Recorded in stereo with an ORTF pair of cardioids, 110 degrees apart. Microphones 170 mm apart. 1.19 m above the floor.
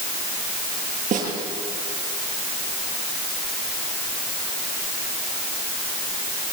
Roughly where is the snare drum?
Ahead right.